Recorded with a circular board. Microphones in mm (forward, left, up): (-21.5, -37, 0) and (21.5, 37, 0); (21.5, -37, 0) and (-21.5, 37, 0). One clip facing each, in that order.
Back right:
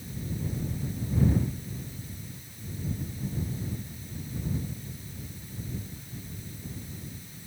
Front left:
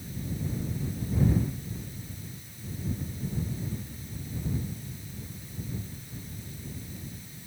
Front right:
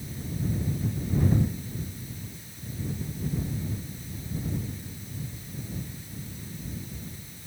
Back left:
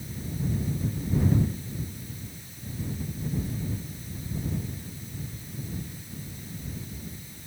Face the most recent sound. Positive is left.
No sound to turn to.